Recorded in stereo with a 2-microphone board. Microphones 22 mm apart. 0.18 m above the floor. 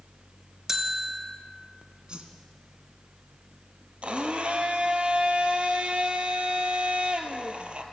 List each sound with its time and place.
0.7 s a bell: 20° right (ahead or behind), 1.8 m
2.1 s a whoosh: 45° right (ahead or behind), 2.0 m
4.0 s a blender: 55° right (ahead or behind), 1.8 m